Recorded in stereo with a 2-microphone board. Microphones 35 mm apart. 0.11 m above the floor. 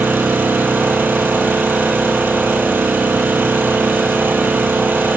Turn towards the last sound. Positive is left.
turn(degrees=-70)  # may be behind; listen again after turning